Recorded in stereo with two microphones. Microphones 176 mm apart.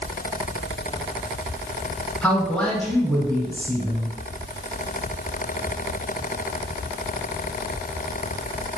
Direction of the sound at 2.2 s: 5° left (ahead or behind).